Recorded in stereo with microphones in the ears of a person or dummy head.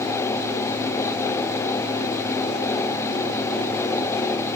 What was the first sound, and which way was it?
Only background noise.